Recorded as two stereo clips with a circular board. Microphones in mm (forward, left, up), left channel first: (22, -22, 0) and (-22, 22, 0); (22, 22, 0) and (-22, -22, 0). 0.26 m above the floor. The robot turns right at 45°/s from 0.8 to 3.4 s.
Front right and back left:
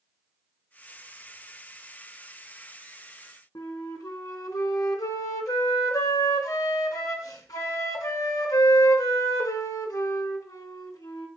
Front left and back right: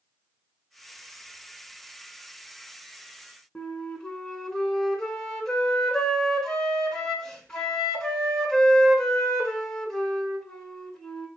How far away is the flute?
About 0.6 m.